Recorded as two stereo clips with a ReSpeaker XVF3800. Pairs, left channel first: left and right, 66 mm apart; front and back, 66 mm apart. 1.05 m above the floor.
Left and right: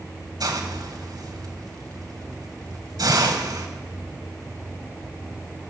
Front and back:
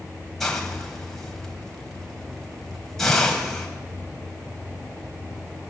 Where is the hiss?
85° right, 3 m.